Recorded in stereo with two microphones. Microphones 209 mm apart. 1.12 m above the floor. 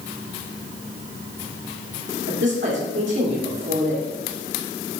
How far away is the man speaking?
About 2.5 m.